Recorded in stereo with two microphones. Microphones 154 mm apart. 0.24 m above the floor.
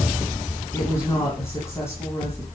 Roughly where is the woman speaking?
Centre.